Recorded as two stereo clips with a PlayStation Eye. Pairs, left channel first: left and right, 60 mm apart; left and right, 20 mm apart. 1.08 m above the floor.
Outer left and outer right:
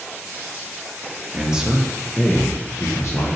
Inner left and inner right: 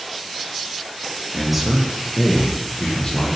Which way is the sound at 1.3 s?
20° right (ahead or behind).